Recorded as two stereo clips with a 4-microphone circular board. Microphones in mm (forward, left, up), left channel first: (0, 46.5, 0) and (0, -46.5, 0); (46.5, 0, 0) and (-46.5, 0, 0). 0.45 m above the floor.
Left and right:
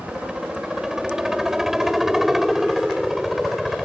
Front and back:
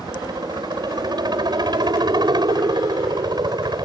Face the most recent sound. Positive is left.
turn(degrees=180)